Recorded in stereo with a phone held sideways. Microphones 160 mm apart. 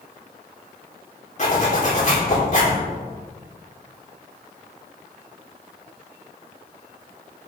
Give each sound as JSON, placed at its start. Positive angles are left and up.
{"t": 1.4, "sound": "a zipper", "side_deg": 45, "distance_m": 2.5}